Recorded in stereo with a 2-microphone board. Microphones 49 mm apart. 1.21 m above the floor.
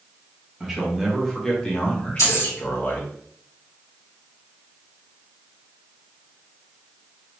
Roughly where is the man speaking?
Centre.